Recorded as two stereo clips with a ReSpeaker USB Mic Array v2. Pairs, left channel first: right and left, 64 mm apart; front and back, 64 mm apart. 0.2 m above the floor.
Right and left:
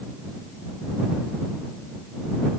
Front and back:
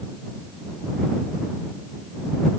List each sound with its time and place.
Only background noise.